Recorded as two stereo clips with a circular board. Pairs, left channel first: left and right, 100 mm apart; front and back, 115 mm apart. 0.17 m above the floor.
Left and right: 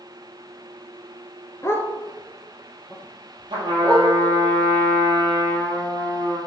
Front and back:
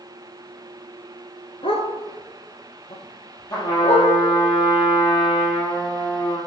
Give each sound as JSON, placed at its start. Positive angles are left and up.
{"t": 1.6, "sound": "a dog barking", "azimuth_deg": 30, "distance_m": 0.9}
{"t": 3.5, "sound": "a trumpet", "azimuth_deg": -50, "distance_m": 2.5}